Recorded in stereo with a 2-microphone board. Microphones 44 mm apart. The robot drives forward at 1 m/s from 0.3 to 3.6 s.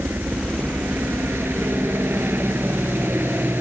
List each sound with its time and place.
0.0 s a helicopter: 65° right (ahead or behind); by 3.6 s 60° right (ahead or behind)